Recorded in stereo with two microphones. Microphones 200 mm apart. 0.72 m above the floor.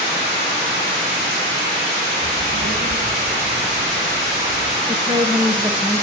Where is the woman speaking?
20° right (ahead or behind), 3 m.